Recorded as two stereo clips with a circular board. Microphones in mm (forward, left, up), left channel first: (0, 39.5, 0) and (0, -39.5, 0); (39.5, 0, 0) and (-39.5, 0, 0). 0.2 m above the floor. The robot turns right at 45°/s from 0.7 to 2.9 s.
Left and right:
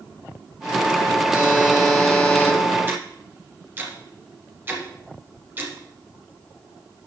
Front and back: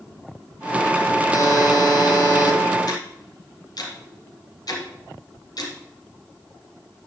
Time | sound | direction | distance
1.3 | a buzzer | 25° right | 2.5 m
2.9 | ticking | 30° right | 2.5 m